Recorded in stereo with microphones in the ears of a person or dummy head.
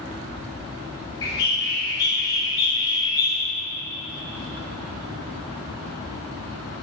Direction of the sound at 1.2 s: 25° left (ahead or behind).